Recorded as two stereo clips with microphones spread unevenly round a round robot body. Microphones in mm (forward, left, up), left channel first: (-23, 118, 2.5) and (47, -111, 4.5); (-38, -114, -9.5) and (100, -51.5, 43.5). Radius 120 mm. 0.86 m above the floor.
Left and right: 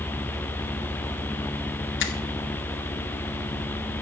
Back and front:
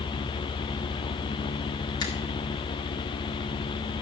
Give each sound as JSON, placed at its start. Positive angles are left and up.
{"t": 2.0, "sound": "a finger snap", "azimuth_deg": 145, "distance_m": 1.5}